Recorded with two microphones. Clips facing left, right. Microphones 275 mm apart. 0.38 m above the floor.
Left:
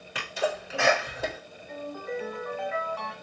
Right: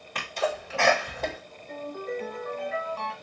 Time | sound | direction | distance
0.1 | a sneeze | 5° left (ahead or behind) | 1.2 m
1.7 | a ringtone | 40° right (ahead or behind) | 1.3 m